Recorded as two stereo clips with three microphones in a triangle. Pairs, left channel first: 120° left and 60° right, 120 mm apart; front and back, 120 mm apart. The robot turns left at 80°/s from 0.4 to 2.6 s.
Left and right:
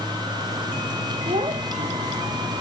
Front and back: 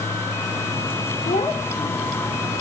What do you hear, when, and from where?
1.2 s a child speaking: 15° right, 2 m; by 2.4 s 105° right, 2 m